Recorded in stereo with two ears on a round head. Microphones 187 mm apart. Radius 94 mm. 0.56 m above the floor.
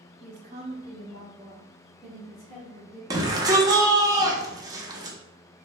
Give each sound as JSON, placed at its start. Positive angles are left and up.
{"t": 0.2, "sound": "a woman speaking", "side_deg": -35, "distance_m": 1.0}
{"t": 3.1, "sound": "a shout", "side_deg": -15, "distance_m": 0.6}